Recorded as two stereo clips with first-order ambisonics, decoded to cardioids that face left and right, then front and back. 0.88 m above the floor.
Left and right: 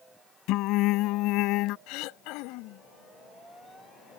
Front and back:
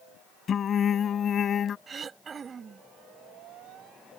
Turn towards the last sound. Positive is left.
turn(degrees=115)